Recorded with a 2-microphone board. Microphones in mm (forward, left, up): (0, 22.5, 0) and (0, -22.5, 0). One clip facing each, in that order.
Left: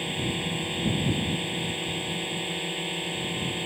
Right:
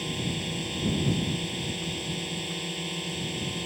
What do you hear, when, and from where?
0.0 s a drone: 20° left (ahead or behind)